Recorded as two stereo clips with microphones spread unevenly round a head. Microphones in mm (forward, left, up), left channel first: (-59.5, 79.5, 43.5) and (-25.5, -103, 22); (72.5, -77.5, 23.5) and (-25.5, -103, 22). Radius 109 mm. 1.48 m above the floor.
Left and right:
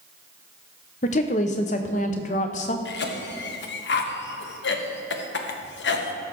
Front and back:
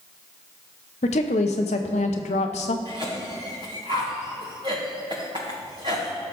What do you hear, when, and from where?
1.0 s a woman speaking: 45° left, 0.5 m
2.9 s a cough: 125° left, 1.2 m